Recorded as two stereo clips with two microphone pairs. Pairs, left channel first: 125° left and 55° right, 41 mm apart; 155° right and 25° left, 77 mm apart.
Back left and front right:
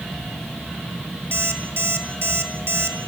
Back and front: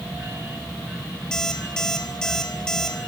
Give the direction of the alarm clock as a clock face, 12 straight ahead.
2 o'clock.